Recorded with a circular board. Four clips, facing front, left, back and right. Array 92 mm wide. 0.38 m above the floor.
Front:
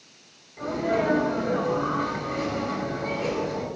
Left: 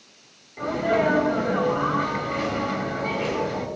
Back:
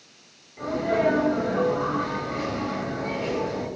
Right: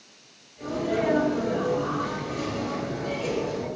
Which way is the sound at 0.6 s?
85° left.